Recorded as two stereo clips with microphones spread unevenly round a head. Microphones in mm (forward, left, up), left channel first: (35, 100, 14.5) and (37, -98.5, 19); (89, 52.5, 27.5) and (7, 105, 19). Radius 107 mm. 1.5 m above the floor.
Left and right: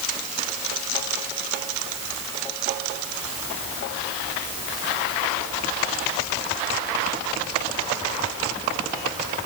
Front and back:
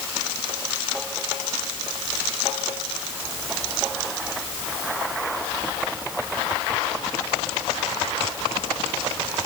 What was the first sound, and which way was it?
Only background noise.